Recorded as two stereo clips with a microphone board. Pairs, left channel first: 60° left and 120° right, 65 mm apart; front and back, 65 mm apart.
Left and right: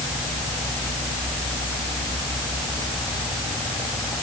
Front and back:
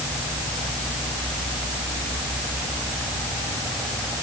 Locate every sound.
Only background noise.